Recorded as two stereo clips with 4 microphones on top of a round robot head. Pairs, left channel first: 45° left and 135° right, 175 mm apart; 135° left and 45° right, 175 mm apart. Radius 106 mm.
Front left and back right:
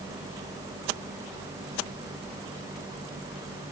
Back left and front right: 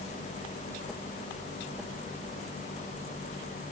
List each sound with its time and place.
Only background noise.